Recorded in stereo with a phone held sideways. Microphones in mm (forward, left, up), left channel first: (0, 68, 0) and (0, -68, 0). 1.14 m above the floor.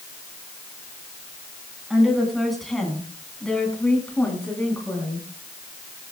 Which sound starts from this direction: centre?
A woman speaking, at 1.9 s.